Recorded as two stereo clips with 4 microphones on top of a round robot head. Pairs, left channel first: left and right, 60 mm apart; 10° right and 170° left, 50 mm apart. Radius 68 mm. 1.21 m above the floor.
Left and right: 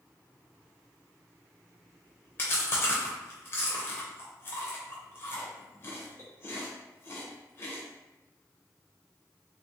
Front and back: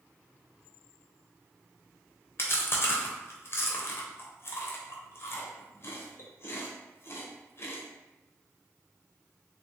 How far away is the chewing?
About 0.6 m.